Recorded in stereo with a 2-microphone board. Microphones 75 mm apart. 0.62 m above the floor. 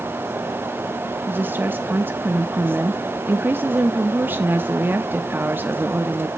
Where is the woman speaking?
25° right (ahead or behind), 0.6 m.